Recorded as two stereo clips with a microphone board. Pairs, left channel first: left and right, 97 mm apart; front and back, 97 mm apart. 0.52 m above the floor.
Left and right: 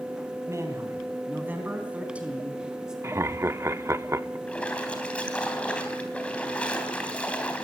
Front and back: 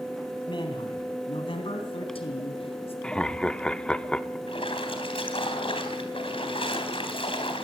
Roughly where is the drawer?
I don't hear a drawer.